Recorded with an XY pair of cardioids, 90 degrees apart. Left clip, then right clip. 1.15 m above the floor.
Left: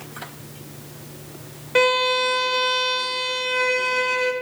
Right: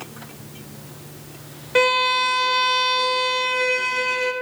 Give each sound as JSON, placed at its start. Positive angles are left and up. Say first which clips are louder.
{"t": 1.8, "sound": "a violin", "louder": "right 1 dB", "azimuth_deg": -5, "distance_m": 0.7}